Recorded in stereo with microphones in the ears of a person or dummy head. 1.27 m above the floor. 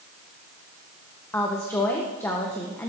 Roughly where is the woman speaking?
Centre.